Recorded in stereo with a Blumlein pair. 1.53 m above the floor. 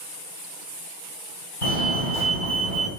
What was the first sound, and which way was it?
A fire alarm, 40° left.